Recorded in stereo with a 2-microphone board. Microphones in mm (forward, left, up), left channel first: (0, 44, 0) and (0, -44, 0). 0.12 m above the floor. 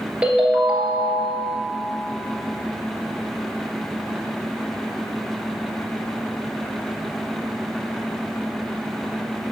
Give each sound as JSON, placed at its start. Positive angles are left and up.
{"t": 0.2, "sound": "a ringtone", "side_deg": -15, "distance_m": 1.3}